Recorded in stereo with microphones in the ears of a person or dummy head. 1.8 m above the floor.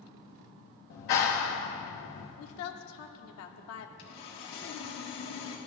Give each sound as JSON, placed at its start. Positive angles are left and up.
{"t": 0.9, "sound": "a clap", "side_deg": 50, "distance_m": 1.1}
{"t": 2.4, "sound": "a woman speaking", "side_deg": 75, "distance_m": 1.1}
{"t": 4.0, "sound": "sawing", "side_deg": 55, "distance_m": 1.6}